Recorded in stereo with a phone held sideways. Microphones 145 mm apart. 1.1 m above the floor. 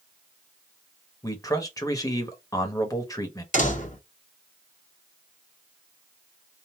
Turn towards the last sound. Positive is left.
turn(degrees=55)  # may be behind; listen again after turning